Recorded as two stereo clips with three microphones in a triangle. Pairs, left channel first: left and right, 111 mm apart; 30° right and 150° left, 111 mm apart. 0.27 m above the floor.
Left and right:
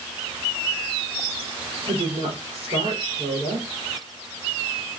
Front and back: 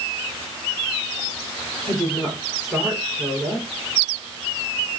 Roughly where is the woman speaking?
Behind right.